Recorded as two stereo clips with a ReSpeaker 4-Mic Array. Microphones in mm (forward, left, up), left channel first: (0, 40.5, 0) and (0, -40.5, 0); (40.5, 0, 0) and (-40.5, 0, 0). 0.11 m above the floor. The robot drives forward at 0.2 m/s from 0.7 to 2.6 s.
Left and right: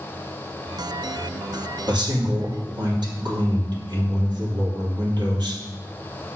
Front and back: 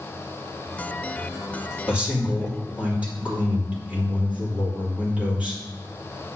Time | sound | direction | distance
1.9 | a man speaking | 105° right | 3 m